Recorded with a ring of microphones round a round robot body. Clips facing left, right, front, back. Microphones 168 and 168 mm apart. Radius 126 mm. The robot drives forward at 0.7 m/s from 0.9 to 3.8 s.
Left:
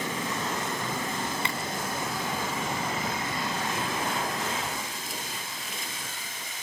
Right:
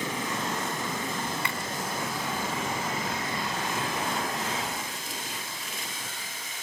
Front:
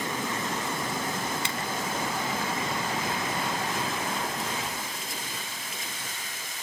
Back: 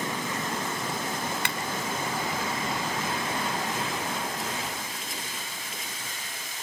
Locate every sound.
1.4 s a clap: 160° left, 3 m